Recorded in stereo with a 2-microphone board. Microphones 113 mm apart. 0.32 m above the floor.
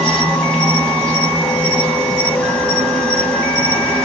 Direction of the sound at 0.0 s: 5° left (ahead or behind).